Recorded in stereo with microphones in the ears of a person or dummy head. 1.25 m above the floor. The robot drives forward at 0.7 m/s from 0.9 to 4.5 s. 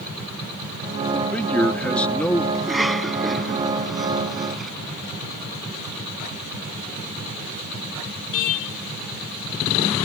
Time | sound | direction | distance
1.1 | a man speaking | 5° left (ahead or behind) | ?
2.5 | a cough | centre (ahead or behind) | ?